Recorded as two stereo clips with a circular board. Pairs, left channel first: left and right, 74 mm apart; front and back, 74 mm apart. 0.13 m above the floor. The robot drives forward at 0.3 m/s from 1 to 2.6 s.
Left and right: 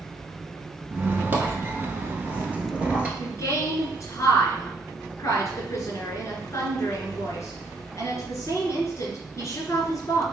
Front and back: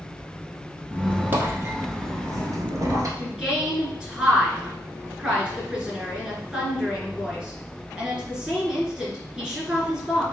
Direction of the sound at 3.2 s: 115° left.